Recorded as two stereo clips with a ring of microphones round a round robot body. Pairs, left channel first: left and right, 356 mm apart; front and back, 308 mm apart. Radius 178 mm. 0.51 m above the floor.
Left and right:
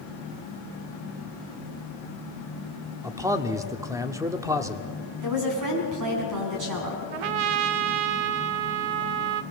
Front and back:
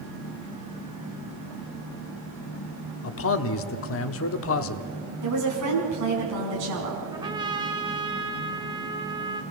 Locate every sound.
3.0 s a man speaking: 10° right, 0.9 m
5.2 s a woman speaking: 130° right, 4 m
7.1 s a trumpet: 100° right, 0.7 m